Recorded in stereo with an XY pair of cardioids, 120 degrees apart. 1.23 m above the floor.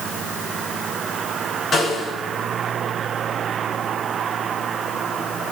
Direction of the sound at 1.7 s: 45° left.